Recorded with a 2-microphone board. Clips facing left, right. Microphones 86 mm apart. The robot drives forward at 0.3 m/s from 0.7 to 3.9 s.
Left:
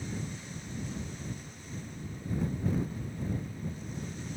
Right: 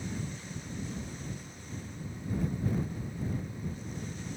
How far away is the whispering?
No whispering in this recording.